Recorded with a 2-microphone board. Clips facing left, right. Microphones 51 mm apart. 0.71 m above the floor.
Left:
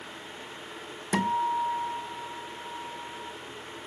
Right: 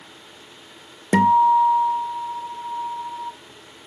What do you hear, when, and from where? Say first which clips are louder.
1.1 s a guitar: right 12 dB; 65° right (ahead or behind), 0.6 m